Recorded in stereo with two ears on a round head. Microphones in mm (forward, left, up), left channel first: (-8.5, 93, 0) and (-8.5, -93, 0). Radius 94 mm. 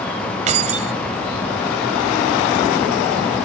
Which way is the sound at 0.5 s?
35° right (ahead or behind).